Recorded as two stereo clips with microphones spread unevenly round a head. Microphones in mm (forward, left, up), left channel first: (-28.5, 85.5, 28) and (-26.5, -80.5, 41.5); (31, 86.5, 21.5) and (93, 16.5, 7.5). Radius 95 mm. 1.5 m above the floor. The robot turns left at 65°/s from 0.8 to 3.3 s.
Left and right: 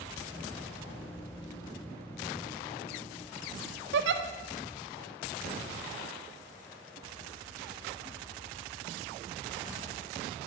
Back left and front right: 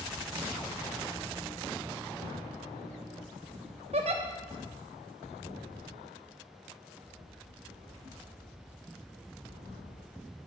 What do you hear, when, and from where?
3.9 s a giggle: 95° right, 0.5 m